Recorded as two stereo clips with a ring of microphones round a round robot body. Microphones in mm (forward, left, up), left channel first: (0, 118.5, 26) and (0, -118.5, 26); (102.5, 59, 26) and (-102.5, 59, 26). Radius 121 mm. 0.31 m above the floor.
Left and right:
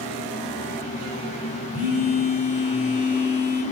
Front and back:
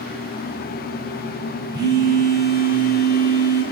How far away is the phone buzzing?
About 1.4 m.